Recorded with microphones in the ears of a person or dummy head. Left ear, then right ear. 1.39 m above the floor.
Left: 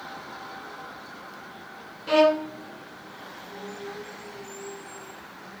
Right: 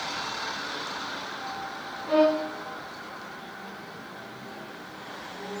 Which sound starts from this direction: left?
A violin, at 2.1 s.